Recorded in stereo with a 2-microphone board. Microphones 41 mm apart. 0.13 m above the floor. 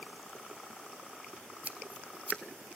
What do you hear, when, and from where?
1.6 s scissors: 40° right (ahead or behind), 1.3 m